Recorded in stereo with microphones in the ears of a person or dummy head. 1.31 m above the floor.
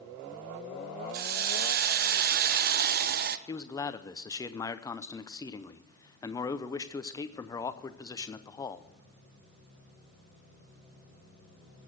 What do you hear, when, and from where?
1.1 s a hiss: 50° right (ahead or behind), 0.6 m
3.5 s a man speaking: 20° left (ahead or behind), 0.7 m